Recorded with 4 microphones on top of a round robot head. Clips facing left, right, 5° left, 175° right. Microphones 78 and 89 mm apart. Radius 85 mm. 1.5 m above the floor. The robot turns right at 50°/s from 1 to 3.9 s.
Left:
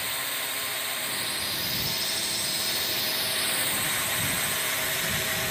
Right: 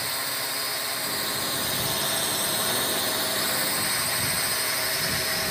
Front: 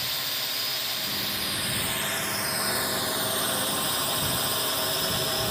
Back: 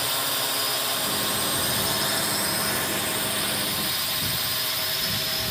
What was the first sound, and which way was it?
A drone, 160° right.